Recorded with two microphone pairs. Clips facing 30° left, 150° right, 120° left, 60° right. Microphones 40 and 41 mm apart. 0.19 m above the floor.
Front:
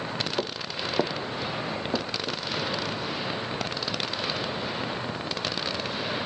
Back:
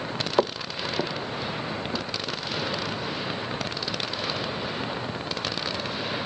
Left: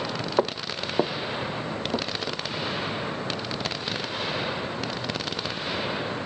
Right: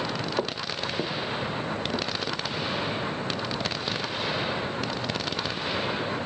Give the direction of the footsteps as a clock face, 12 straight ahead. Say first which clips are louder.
Back 5 dB, left 4 dB; 6 o'clock.